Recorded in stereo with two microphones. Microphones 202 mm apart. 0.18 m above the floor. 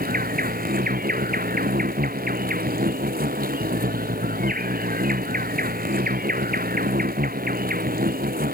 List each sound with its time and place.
0.0 s an insect: 45° right (ahead or behind)